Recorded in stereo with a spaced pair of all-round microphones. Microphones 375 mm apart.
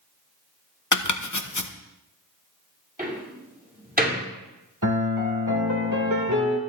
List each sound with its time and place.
0.9 s chopping: 50° left (ahead or behind), 0.9 m
3.0 s a door slam: 25° right (ahead or behind), 6 m
4.8 s a piano: 50° right (ahead or behind), 2.5 m